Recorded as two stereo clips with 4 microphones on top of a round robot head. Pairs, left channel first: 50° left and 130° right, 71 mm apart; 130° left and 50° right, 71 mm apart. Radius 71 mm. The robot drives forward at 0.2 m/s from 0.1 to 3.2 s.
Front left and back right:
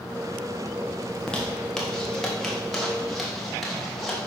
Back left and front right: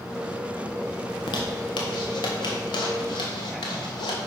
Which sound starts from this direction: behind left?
A zipper, at 1.1 s.